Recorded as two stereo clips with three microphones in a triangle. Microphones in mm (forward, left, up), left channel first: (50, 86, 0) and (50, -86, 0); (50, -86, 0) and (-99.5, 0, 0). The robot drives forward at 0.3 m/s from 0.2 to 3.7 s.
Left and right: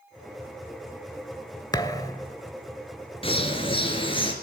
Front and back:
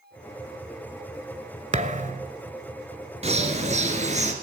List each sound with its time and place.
1.7 s a thud: 145° left, 0.6 m; by 2.3 s 155° left, 0.7 m
3.2 s a bird: 125° left, 1.6 m; by 4.3 s 135° left, 1.6 m